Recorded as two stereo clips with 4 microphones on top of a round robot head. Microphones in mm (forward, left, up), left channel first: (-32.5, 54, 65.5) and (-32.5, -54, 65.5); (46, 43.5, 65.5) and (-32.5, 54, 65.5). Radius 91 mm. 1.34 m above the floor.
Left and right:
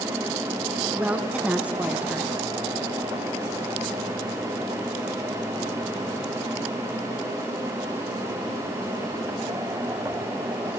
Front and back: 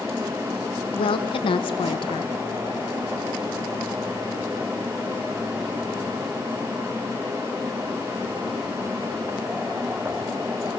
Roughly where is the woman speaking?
Ahead.